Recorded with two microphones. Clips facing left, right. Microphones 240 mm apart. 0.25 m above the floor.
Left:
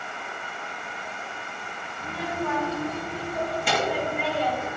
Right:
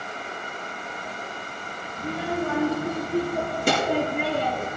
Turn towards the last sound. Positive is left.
turn(degrees=-55)  # may be behind; listen again after turning